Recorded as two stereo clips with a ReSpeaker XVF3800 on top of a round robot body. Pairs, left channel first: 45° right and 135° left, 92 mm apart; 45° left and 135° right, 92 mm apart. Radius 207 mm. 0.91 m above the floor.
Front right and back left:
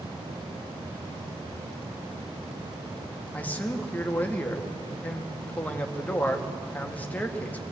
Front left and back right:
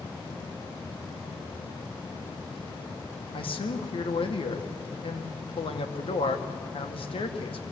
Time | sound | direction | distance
3.3 | a man speaking | 25° left | 2.0 m